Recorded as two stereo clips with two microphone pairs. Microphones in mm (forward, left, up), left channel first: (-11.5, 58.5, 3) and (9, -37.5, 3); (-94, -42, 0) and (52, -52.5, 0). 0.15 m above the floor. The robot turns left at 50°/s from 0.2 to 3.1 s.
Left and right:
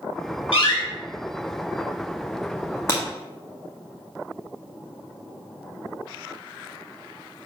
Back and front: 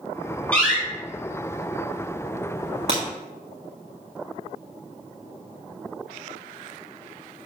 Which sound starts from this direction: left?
A door slam, at 0.5 s.